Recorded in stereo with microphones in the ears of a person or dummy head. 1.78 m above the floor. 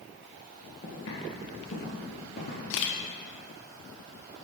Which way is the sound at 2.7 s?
70° left (ahead or behind).